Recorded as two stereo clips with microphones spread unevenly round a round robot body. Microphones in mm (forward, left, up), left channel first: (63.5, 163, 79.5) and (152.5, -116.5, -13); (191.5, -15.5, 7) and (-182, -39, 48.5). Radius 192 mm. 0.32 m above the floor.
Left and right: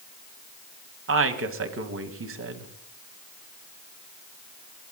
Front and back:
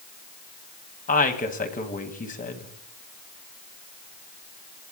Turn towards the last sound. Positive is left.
turn(degrees=-60)